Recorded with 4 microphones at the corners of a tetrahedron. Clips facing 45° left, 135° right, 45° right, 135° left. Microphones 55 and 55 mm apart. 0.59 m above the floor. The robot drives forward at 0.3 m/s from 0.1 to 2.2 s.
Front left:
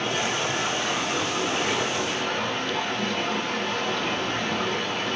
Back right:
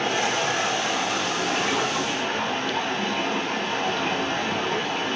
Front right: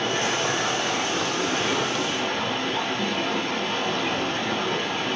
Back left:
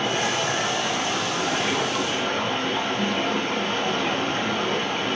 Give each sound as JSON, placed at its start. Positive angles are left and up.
{"t": 0.0, "sound": "running water", "azimuth_deg": -160, "distance_m": 1.5}